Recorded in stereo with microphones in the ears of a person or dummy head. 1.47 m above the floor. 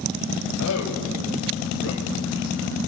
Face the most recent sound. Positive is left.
turn(degrees=70)  # may be behind; listen again after turning